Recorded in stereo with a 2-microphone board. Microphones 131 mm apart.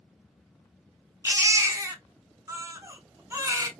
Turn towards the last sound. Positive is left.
turn(degrees=-25)  # may be behind; listen again after turning